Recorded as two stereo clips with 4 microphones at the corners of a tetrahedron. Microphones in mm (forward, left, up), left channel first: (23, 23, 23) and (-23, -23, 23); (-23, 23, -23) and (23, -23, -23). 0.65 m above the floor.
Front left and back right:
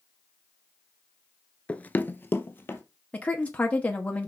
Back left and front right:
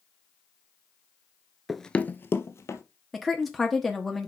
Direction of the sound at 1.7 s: 35° left.